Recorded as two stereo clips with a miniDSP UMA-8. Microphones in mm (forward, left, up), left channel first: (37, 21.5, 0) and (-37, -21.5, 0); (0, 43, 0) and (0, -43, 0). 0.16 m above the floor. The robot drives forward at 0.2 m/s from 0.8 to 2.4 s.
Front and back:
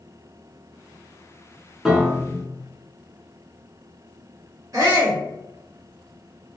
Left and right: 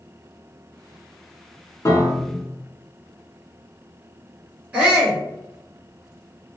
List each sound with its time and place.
1.9 s a piano: 125° left, 0.5 m; by 2.5 s 135° left, 0.6 m
4.7 s a shout: 160° right, 1.4 m